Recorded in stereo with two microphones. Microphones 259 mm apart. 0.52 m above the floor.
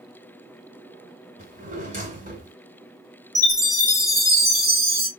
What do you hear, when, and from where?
1.4 s a drawer: 30° right (ahead or behind), 1.8 m
3.4 s a chime: 40° right (ahead or behind), 2.5 m